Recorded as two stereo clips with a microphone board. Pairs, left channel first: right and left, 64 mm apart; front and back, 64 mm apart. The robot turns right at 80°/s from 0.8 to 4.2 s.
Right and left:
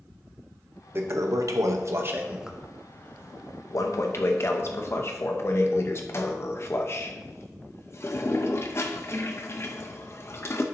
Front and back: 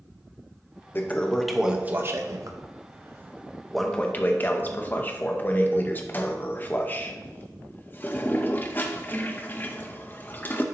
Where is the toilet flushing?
45° left, 0.8 m; by 10.6 s 55° right, 0.8 m.